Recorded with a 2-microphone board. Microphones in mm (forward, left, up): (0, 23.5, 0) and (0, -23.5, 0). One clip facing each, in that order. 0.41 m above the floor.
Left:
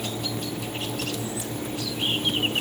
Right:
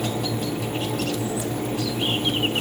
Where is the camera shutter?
No camera shutter in this recording.